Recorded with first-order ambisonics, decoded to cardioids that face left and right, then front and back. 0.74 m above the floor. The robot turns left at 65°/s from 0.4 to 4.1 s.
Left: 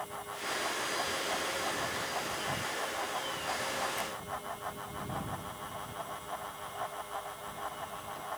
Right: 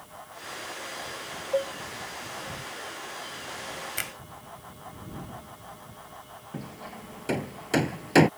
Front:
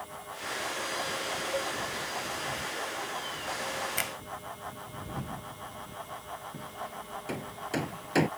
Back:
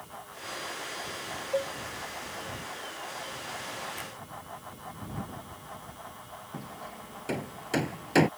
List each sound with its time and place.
1.5 s a cowbell: 105° right; by 1.7 s 120° right
4.0 s a finger snap: 45° right; by 4.1 s 50° right
6.5 s hammering: 100° right